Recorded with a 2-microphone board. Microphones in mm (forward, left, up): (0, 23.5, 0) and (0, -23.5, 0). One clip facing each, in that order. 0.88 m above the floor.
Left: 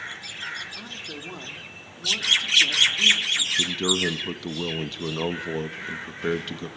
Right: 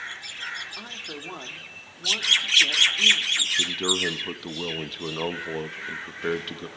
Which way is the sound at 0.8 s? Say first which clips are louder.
Even; 15° right (ahead or behind).